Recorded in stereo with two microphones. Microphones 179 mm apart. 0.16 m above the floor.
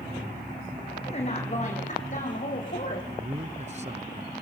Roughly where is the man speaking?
Right.